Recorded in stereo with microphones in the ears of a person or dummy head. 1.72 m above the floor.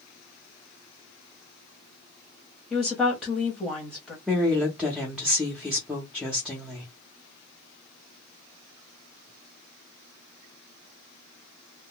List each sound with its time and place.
2.7 s a woman speaking: 5° left (ahead or behind), 1.0 m
4.3 s a woman speaking: 5° right (ahead or behind), 0.6 m